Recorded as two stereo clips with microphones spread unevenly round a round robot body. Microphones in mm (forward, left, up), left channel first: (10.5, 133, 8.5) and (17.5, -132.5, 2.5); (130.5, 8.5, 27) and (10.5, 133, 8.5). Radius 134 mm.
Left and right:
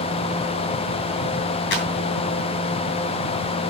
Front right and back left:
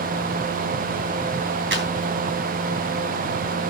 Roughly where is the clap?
Behind left.